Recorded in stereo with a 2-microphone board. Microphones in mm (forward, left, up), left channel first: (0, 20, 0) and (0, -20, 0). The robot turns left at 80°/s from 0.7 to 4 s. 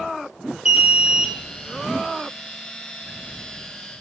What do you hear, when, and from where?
0.7 s an alarm: 20° right (ahead or behind), 1.3 m; by 1.3 s centre (ahead or behind), 1.3 m